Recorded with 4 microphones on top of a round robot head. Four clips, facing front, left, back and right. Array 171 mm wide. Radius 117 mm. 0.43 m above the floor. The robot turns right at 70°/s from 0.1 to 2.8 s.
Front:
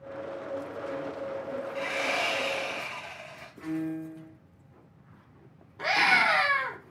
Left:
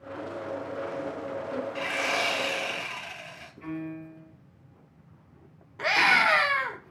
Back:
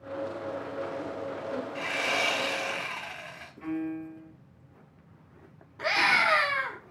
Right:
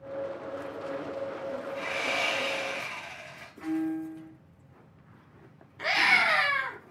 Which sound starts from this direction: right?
A piano, at 3.6 s.